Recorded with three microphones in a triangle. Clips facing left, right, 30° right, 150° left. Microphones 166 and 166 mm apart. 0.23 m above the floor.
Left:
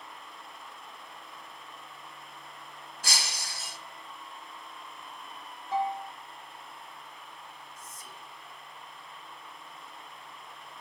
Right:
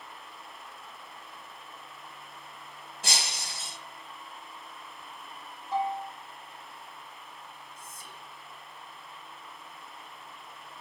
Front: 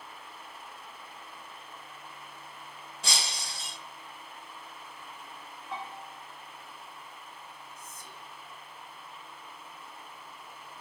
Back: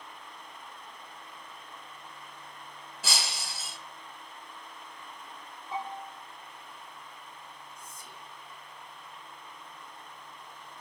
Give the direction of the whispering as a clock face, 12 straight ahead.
9 o'clock.